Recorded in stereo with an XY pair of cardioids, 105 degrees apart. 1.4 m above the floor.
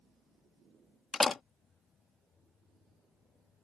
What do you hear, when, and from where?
1.1 s a door slam: 40° left